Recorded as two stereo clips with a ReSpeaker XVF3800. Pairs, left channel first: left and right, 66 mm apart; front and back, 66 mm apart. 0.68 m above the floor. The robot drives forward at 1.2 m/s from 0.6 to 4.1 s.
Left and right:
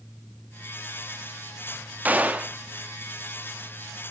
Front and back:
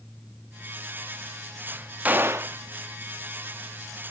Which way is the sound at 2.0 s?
135° right.